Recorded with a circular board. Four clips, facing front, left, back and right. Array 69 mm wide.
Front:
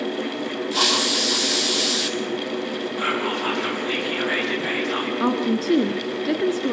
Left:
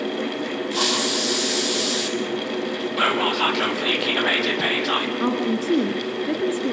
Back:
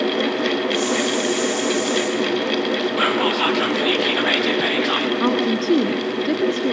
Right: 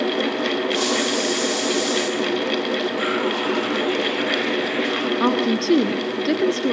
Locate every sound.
0.7 s a hiss: 20° left, 3.5 m
3.0 s whispering: 140° left, 4.5 m
5.2 s a woman speaking: 95° right, 1.1 m